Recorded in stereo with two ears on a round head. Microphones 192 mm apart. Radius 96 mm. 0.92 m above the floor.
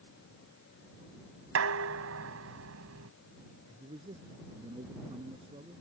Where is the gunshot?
I don't hear a gunshot.